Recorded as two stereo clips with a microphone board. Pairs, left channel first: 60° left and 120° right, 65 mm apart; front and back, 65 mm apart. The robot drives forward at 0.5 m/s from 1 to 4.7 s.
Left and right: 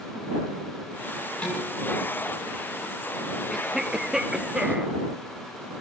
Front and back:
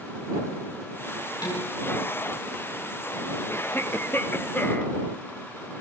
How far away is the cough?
About 2.5 m.